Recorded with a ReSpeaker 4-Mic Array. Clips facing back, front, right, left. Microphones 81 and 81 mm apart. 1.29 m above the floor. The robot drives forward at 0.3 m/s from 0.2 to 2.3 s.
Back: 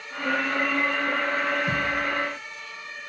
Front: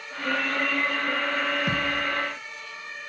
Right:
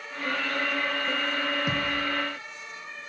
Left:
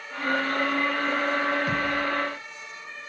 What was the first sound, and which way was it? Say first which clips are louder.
A thud: back 1 dB, left 3 dB; 10° right.